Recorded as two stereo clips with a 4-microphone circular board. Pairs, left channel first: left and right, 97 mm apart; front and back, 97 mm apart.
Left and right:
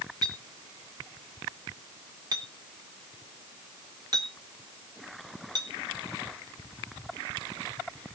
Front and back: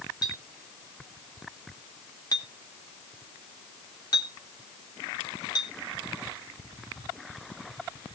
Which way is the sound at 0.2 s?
45° right.